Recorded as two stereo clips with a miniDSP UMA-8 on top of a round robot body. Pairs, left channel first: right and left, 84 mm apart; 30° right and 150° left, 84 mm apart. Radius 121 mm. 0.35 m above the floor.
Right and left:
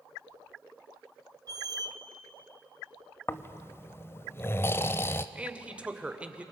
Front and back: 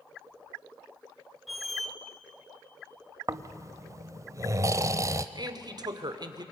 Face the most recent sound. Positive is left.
turn(degrees=160)